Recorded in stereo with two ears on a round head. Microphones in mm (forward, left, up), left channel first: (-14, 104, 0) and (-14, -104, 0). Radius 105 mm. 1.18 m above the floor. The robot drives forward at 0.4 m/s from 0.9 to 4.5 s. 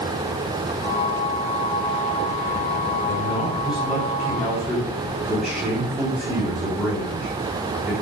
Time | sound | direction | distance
3.1 | a man speaking | centre (ahead or behind) | 4 m